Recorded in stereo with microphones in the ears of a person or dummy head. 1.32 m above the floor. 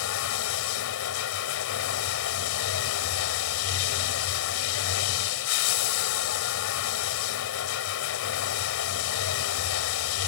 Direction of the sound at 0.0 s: 80° left.